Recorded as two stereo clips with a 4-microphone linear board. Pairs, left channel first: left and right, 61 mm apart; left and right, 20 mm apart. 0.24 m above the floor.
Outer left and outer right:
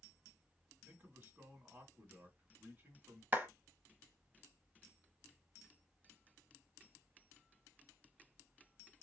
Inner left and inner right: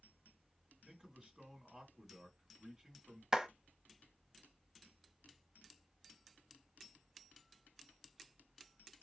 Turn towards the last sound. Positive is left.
turn(degrees=-30)  # may be behind; listen again after turning